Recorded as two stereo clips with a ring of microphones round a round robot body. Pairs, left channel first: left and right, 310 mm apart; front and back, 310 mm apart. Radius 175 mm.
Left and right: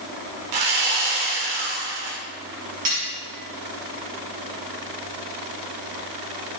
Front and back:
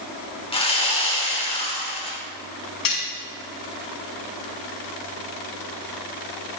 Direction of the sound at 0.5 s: 70° right.